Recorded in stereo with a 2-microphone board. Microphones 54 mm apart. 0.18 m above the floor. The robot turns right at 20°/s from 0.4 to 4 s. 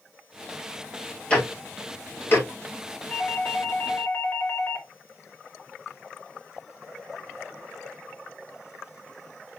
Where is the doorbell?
40° left (ahead or behind), 2.5 m; by 4.9 s 50° left (ahead or behind), 2.5 m.